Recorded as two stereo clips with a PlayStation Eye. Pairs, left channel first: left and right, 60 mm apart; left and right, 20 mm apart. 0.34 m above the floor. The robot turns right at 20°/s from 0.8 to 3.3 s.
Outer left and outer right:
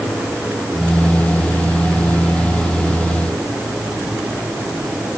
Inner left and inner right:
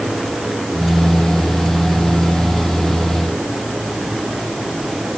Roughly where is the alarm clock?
No alarm clock in this recording.